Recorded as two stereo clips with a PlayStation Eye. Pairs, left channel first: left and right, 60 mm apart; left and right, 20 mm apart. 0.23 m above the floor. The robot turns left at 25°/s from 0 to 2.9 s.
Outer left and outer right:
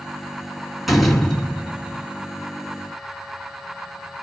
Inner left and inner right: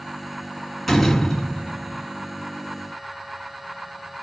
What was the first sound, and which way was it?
A door slam, 175° right.